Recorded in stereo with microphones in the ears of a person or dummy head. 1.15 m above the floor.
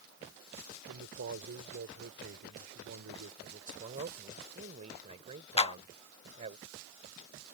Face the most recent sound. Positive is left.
turn(degrees=25)  # may be behind; listen again after turning